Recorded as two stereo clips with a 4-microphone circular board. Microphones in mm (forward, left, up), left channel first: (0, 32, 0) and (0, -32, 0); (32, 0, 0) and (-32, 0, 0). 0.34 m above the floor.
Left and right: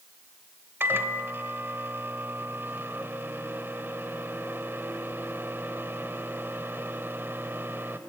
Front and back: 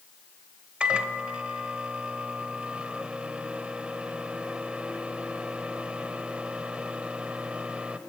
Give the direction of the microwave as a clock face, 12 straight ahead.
4 o'clock.